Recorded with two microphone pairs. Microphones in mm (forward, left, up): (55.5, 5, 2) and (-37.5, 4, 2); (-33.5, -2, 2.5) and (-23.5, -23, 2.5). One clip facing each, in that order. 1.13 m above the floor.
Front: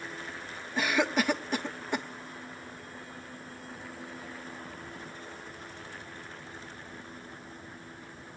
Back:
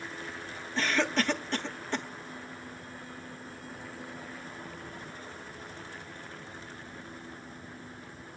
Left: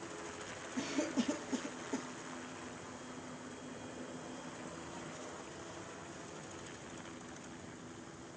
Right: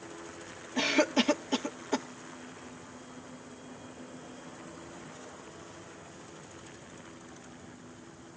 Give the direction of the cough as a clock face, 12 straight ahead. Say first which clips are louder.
Front 1 dB, right 10 dB; 3 o'clock.